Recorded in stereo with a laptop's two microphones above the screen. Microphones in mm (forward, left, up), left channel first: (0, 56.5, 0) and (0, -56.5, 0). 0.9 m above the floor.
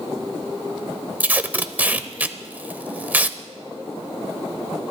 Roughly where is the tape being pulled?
Centre.